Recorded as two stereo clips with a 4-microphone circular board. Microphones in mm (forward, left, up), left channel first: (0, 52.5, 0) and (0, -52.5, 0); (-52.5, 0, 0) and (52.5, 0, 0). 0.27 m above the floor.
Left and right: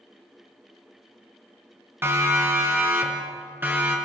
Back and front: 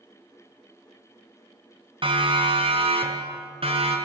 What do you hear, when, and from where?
2.0 s a siren: 25° right, 4 m; by 4.0 s 20° right, 5.5 m